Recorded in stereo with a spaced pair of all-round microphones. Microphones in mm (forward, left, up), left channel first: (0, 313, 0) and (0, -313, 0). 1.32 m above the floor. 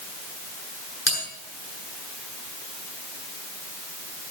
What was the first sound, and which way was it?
A bell, 20° left (ahead or behind).